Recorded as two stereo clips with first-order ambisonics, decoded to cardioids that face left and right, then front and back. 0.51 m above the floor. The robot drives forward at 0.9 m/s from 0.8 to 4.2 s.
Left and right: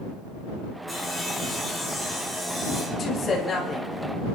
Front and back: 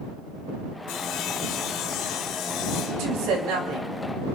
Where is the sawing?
5° right, 4 m; by 3.1 s 10° right, 2 m.